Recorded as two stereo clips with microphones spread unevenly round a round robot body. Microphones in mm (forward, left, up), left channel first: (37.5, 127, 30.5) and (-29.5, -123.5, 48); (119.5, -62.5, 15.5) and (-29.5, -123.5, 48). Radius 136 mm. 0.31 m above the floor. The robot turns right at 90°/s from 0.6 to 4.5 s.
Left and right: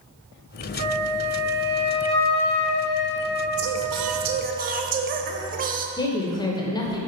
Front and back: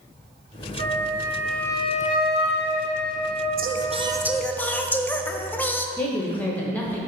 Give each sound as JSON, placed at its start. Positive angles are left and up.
{"t": 0.8, "sound": "a flute", "azimuth_deg": -135, "distance_m": 0.9}
{"t": 3.6, "sound": "singing", "azimuth_deg": -135, "distance_m": 0.7}
{"t": 6.0, "sound": "a woman speaking", "azimuth_deg": 45, "distance_m": 0.9}